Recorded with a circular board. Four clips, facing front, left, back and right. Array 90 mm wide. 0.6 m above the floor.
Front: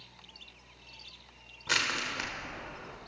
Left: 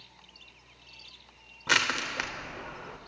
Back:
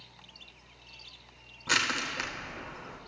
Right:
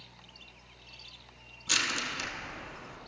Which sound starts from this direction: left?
Crushing, at 1.7 s.